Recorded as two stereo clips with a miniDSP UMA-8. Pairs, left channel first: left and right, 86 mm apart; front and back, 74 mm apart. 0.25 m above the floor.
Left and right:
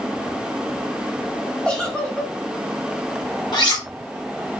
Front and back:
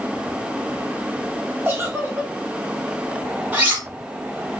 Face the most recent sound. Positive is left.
turn(degrees=115)